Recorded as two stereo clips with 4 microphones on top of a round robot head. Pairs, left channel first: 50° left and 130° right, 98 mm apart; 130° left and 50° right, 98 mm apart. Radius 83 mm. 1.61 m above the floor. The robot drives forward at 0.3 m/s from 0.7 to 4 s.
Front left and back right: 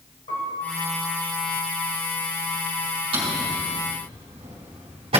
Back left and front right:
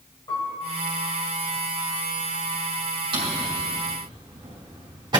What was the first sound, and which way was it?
A piano, 80° left.